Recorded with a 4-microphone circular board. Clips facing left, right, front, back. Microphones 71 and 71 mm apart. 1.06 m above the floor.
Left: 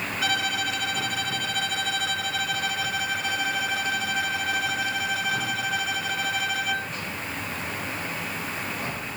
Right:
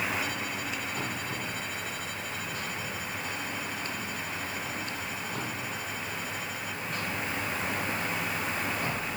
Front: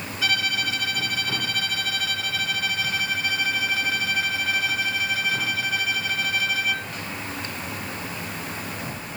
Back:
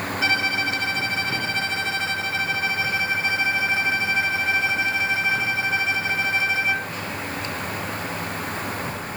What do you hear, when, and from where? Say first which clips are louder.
0.2 s a violin: left 7 dB, back 2 dB; 115° left